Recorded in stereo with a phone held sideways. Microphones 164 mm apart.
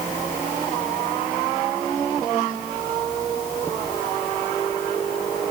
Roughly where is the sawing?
No sawing in this recording.